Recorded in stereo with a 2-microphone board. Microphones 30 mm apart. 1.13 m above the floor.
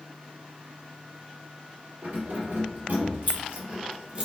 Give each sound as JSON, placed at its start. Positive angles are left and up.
{"t": 2.0, "sound": "keys jangling", "side_deg": -70, "distance_m": 1.3}